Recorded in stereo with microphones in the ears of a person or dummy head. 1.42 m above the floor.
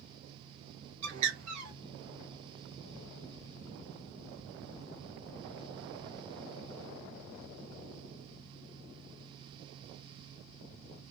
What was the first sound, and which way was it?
A bird, 40° right (ahead or behind).